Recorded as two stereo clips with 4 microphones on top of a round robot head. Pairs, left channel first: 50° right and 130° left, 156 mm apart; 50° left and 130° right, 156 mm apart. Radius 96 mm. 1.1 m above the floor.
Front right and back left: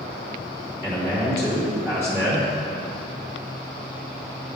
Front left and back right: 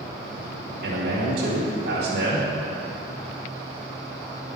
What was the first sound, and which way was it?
A man speaking, 140° right.